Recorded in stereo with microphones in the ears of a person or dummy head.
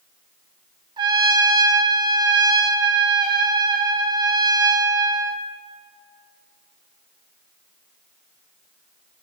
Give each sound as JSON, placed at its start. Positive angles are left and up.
{"t": 1.0, "sound": "a trumpet", "side_deg": -25, "distance_m": 0.7}